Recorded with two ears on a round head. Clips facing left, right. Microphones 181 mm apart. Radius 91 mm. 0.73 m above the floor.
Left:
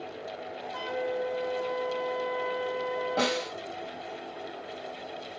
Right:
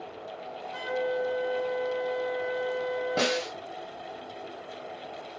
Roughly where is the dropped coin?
No dropped coin in this recording.